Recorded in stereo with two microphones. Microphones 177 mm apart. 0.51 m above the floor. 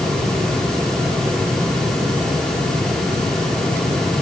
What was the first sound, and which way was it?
Only background noise.